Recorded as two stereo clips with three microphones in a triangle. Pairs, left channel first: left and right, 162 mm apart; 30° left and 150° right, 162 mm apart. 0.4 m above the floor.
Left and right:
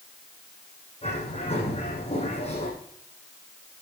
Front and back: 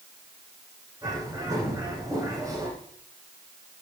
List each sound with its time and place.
1.0 s a bird: 140° left, 7 m